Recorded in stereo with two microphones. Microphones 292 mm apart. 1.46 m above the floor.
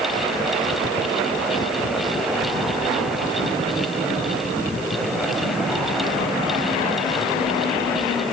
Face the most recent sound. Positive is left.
No sound to turn to.